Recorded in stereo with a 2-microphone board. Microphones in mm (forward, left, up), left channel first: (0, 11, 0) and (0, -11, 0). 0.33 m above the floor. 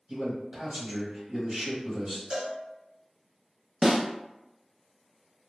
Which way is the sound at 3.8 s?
35° right (ahead or behind).